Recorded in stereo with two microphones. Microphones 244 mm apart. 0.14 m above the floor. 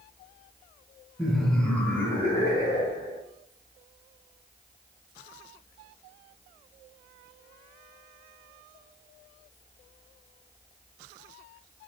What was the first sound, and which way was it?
Laughter, 5° right (ahead or behind).